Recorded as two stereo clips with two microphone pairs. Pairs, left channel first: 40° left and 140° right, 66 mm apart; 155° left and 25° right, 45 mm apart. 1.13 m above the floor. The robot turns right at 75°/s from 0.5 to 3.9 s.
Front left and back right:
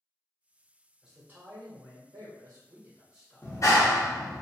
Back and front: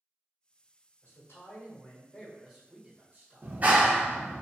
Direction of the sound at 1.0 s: 135° left.